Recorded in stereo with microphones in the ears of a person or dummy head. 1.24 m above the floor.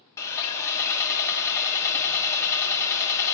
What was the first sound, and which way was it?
Sawing, 20° left (ahead or behind).